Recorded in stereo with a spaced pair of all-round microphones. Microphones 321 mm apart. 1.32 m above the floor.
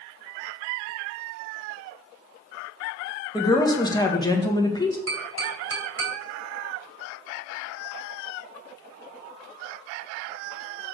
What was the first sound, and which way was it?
A woman speaking, 15° left (ahead or behind).